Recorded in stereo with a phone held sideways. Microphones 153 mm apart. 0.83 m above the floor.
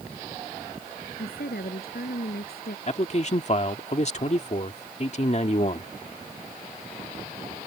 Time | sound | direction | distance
1.2 | a woman speaking | 85° left | ?
2.9 | a man speaking | 45° left (ahead or behind) | ?